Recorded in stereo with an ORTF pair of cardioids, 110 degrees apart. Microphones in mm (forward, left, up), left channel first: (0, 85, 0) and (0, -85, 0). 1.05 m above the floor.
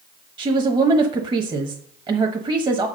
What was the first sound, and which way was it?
A woman speaking, 25° right.